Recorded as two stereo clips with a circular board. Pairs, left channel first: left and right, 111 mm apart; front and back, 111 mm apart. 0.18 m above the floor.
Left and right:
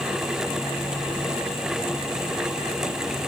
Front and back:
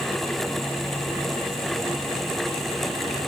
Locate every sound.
Only background noise.